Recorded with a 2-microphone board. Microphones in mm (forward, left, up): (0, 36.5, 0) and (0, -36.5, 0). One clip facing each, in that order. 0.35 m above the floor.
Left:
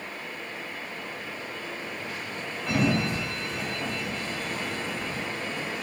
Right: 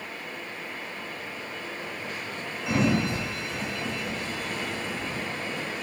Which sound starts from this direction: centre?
A sliding door, at 2.7 s.